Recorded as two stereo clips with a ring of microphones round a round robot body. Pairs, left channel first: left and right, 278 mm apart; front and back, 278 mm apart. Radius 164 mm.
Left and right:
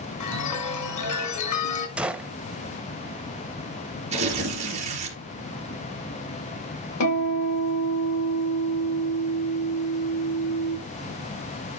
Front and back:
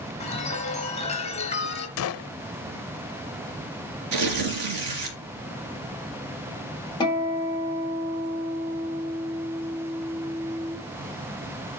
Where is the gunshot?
5° right, 0.6 m.